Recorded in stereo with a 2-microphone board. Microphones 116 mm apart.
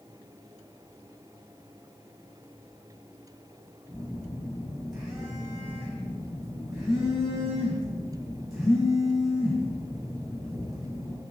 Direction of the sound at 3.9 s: 5° right (ahead or behind).